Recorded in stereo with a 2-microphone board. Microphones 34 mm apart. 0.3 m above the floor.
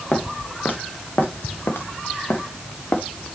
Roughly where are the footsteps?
Left.